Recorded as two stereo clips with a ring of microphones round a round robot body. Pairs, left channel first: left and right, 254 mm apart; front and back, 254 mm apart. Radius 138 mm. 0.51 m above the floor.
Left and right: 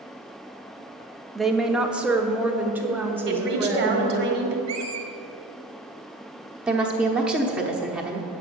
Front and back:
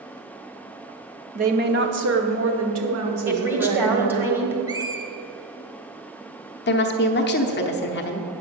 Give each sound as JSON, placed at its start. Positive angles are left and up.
{"t": 1.4, "sound": "a woman speaking", "azimuth_deg": 180, "distance_m": 0.7}
{"t": 3.3, "sound": "a woman speaking", "azimuth_deg": -100, "distance_m": 1.7}
{"t": 4.7, "sound": "a squeak", "azimuth_deg": -105, "distance_m": 1.0}
{"t": 6.7, "sound": "a woman speaking", "azimuth_deg": -5, "distance_m": 0.8}